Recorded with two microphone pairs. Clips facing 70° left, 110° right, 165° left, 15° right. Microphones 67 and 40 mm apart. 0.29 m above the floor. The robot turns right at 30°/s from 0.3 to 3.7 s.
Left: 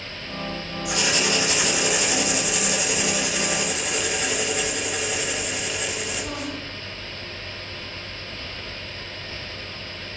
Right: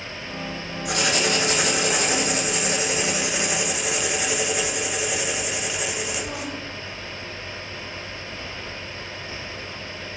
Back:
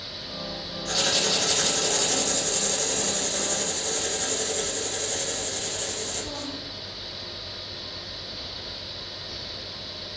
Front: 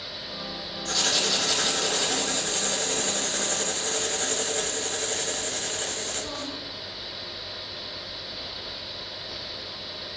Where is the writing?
115° right, 0.6 m; by 6.6 s 30° right, 0.6 m.